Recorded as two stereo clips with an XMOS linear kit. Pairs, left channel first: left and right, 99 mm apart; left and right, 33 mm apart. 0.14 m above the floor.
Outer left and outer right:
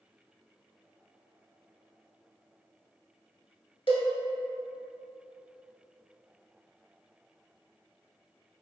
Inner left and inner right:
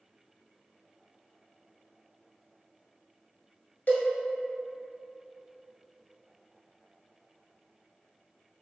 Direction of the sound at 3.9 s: 60° left (ahead or behind).